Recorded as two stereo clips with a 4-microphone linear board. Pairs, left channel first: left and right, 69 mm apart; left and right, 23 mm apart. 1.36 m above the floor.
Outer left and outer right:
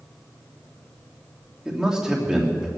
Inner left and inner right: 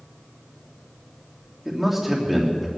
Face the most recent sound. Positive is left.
turn(degrees=-10)  # may be behind; listen again after turning